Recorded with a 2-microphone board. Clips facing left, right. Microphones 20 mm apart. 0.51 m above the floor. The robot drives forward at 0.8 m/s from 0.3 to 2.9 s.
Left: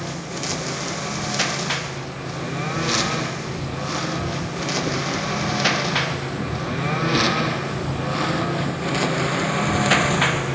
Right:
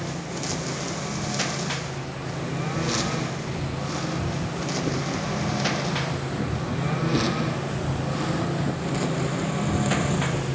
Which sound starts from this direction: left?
A lawn mower, at 0.0 s.